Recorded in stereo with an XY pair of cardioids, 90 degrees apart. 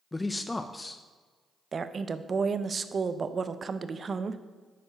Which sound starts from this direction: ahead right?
A woman speaking, at 1.7 s.